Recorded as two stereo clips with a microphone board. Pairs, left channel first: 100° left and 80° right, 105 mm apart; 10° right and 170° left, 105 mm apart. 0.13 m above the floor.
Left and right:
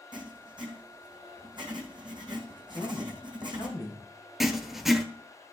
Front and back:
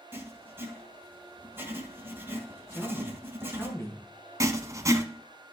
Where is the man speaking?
50° left, 3.5 m.